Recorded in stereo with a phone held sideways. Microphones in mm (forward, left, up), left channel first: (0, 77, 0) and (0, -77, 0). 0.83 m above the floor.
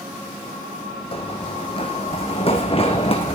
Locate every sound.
1.1 s running footsteps: 40° left (ahead or behind), 2 m